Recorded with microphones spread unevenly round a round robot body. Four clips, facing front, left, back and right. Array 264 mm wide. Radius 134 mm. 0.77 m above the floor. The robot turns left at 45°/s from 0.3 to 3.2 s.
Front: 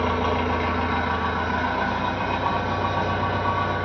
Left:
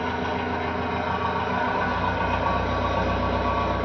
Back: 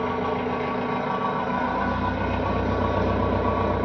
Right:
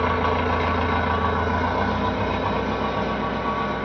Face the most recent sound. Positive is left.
turn(degrees=180)